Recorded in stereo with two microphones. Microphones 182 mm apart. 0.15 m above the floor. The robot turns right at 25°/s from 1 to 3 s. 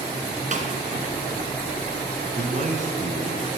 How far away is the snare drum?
About 1.5 m.